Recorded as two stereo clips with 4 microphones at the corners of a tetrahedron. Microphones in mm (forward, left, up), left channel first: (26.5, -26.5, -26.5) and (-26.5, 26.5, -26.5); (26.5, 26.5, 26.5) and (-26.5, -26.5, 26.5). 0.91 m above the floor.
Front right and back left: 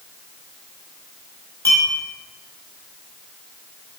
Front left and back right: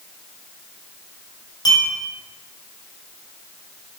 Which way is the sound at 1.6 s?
10° left.